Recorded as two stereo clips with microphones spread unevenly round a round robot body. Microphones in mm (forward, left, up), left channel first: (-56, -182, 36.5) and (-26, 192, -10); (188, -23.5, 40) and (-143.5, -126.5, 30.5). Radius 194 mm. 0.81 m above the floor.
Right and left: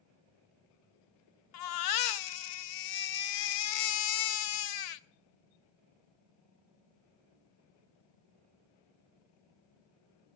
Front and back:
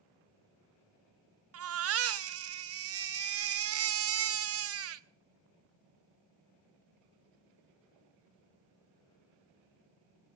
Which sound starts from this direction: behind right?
A baby crying, at 1.5 s.